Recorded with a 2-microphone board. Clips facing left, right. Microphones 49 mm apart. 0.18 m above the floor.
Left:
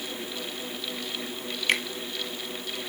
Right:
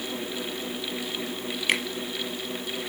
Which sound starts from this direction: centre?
A finger snap, at 1.7 s.